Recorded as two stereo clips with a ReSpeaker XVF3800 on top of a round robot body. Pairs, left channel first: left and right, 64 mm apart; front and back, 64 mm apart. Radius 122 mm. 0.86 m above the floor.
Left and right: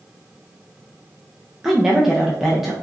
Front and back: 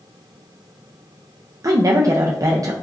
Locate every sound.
1.6 s a woman speaking: 175° right, 0.5 m